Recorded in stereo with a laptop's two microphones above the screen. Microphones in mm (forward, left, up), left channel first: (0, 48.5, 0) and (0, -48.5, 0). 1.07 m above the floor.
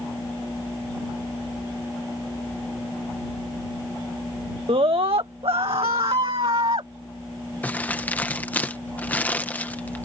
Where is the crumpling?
15° left (ahead or behind).